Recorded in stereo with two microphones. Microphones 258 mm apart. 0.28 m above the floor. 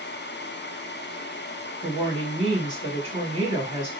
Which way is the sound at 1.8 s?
20° right (ahead or behind).